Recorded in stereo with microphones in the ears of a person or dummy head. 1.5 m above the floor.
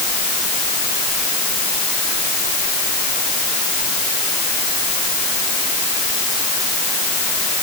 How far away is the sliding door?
I don't hear a sliding door.